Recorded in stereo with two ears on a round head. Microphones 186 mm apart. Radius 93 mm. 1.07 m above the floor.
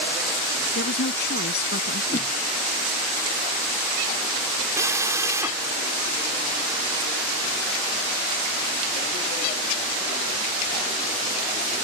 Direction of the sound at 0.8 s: 50° left (ahead or behind).